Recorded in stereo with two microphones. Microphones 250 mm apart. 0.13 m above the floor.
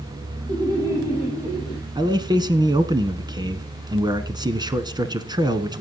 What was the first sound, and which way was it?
Laughter, 20° right (ahead or behind).